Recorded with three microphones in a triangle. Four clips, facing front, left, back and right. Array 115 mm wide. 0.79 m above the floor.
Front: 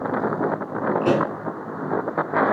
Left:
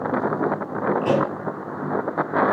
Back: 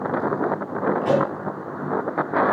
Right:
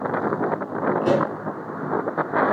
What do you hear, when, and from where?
1.0 s a pop: 15° right, 8 m